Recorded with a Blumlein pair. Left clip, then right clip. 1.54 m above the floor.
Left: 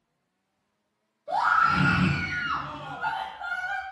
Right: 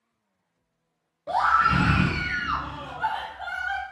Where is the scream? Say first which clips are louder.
Right 1 dB; 45° right, 0.5 m.